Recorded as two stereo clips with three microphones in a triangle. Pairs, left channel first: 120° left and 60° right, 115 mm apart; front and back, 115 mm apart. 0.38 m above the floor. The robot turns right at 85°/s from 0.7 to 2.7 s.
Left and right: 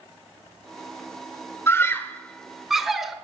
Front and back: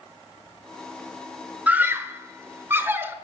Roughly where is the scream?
Behind left.